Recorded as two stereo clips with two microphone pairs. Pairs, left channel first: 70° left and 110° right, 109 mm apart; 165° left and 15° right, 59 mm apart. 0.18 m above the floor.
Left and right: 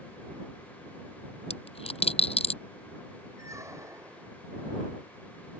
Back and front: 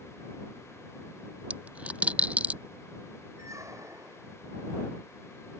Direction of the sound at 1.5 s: 50° left.